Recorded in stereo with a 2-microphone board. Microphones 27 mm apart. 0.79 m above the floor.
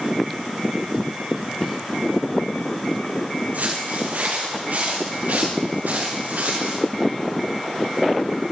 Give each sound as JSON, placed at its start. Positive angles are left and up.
{"t": 3.5, "sound": "footsteps", "side_deg": -75, "distance_m": 4.0}